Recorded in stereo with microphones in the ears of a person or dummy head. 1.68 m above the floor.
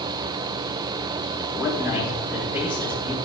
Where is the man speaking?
10° right (ahead or behind), 5 m.